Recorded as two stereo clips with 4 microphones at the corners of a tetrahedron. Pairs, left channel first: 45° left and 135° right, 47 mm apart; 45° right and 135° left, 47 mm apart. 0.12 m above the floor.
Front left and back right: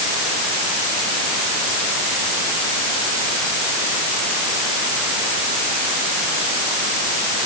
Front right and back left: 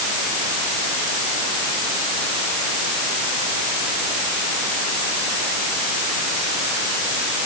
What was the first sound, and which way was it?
Only background noise.